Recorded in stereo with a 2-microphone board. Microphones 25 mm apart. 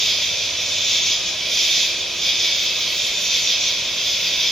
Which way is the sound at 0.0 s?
25° left (ahead or behind).